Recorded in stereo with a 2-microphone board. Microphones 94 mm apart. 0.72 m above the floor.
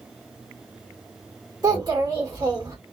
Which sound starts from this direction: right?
A child speaking, at 1.6 s.